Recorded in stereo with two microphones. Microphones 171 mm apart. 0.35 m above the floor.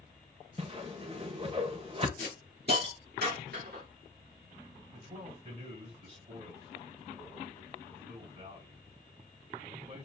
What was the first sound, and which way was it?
A whoosh, 35° right (ahead or behind).